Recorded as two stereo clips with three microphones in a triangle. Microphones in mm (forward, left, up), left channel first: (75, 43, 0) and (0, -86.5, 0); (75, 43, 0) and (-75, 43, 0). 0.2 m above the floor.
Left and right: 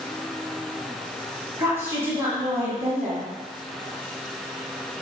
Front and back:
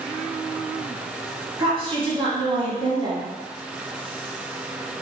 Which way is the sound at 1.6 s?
Straight behind.